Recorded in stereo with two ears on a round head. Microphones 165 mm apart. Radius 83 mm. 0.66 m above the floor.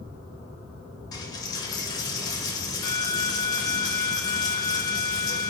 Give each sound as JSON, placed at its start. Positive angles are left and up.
{"t": 1.1, "sound": "a dropped coin", "side_deg": 20, "distance_m": 0.5}